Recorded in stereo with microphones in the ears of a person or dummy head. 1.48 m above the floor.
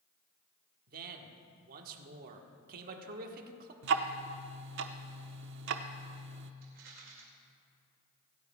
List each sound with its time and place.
0.9 s a man speaking: 50° right (ahead or behind), 1.3 m
3.8 s ticking: 65° right (ahead or behind), 0.7 m
6.6 s a rattle: 60° right (ahead or behind), 2 m